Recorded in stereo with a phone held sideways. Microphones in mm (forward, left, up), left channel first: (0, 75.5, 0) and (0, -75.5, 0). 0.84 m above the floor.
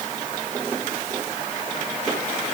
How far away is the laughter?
I don't hear laughter.